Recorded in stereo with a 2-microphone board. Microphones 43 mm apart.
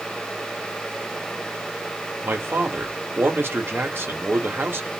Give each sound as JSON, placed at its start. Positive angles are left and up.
{"t": 2.2, "sound": "a man speaking", "side_deg": -65, "distance_m": 1.5}